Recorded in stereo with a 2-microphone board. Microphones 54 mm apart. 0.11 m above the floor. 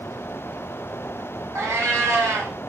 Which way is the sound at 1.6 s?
75° right (ahead or behind).